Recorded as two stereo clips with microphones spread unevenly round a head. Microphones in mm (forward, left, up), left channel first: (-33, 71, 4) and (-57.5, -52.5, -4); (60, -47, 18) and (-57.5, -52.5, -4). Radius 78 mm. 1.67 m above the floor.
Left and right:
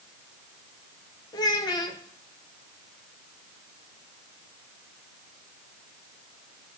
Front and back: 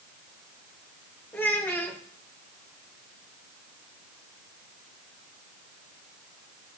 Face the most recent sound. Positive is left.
turn(degrees=55)